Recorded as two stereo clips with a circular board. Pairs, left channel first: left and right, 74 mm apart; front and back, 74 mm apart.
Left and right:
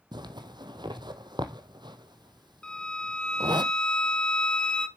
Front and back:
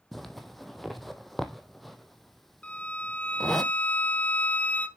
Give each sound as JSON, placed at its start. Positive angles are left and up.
{"t": 0.1, "sound": "a zipper", "azimuth_deg": -90, "distance_m": 0.8}
{"t": 2.6, "sound": "a violin", "azimuth_deg": 30, "distance_m": 0.7}